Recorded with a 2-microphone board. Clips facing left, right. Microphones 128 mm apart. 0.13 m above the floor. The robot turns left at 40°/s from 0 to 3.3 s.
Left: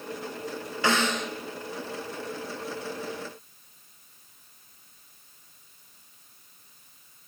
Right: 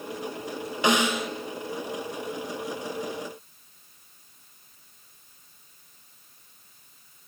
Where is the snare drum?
20° right (ahead or behind), 0.8 m; by 1.3 s 5° right (ahead or behind), 0.8 m.